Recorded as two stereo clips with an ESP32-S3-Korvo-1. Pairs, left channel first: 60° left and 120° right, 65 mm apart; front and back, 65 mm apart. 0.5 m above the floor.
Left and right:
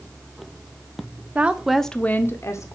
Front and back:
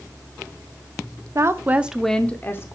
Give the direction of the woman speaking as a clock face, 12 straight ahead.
6 o'clock.